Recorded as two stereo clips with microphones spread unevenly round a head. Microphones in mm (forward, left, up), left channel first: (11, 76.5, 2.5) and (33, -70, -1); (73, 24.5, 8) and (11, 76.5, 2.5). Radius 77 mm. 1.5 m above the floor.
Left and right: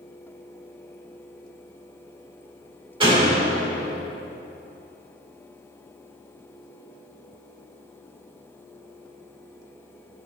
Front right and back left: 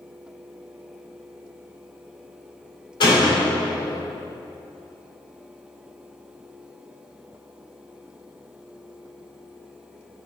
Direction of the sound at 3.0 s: 25° right.